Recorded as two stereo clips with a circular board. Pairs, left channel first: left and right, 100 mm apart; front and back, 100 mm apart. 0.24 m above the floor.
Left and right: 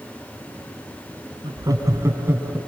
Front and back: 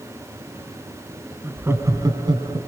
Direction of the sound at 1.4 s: 110° right.